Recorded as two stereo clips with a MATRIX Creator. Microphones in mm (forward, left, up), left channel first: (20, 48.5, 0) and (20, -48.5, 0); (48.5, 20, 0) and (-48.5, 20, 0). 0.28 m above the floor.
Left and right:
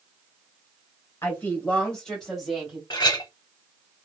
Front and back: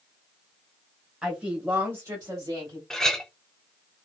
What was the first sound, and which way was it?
A woman speaking, 110° left.